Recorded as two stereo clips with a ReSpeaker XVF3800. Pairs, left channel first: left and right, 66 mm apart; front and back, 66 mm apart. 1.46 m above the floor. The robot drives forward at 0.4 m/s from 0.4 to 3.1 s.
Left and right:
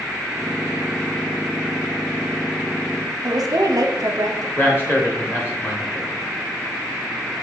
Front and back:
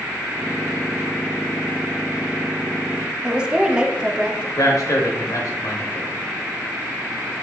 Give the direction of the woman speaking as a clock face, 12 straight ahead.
3 o'clock.